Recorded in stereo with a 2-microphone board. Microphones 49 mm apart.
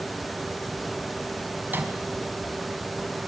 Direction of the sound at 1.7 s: 40° right (ahead or behind).